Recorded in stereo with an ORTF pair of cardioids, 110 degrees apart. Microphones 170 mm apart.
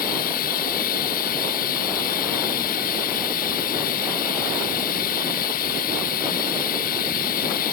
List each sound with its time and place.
0.0 s running water: 65° left